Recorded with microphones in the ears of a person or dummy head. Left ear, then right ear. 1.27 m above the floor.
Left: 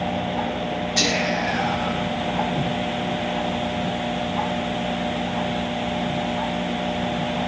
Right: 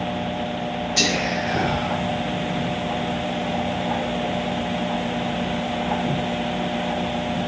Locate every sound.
1.0 s whispering: centre (ahead or behind), 0.6 m